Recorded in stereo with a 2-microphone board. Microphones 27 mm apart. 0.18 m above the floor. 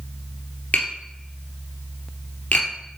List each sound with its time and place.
0.7 s tapping: 70° left (ahead or behind), 2 m